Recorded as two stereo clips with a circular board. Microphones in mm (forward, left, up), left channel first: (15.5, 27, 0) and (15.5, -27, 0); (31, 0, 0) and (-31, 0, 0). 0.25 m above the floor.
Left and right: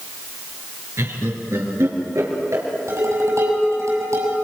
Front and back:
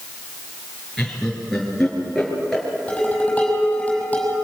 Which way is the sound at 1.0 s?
85° right.